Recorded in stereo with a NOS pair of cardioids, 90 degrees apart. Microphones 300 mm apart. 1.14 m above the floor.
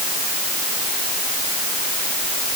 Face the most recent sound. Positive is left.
No sound to turn to.